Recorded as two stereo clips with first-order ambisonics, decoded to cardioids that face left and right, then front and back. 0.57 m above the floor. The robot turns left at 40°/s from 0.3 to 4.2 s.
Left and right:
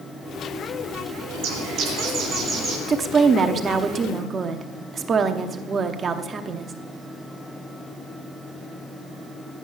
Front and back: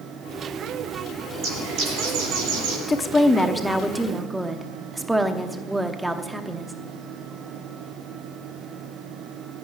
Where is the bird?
120° right, 6.5 m; by 2.8 s straight behind, 6.5 m.